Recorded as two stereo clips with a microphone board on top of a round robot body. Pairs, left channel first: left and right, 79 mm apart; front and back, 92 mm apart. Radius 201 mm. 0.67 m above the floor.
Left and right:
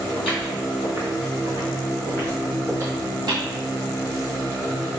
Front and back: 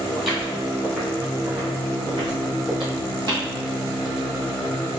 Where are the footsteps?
85° left, 1.9 m; by 3.5 s 125° right, 1.2 m.